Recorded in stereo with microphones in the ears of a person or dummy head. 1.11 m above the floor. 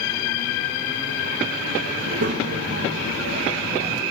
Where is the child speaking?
60° right (ahead or behind), 0.7 m.